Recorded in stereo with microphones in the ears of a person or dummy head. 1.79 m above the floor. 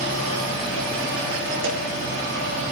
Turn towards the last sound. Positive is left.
turn(degrees=-75)  # may be behind; listen again after turning